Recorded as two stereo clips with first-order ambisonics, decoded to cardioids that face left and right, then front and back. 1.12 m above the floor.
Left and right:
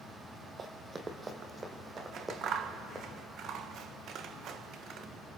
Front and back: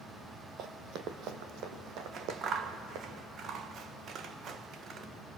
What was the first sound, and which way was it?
Running footsteps, 150° right.